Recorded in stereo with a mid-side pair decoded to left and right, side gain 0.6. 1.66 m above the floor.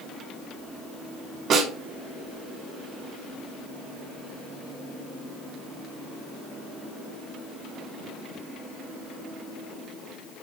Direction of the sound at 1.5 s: 55° right.